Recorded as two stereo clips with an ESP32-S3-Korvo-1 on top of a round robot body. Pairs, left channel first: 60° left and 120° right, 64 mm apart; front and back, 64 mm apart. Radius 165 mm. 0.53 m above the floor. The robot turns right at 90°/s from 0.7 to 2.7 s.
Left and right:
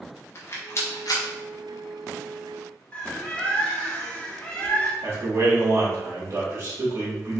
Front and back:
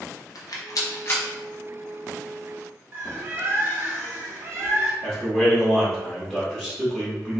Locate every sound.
0.3 s a rattle: 15° left, 1.0 m; by 1.2 s 65° left, 1.0 m
2.9 s a bird: 130° left, 1.0 m
5.0 s a man speaking: 75° right, 1.8 m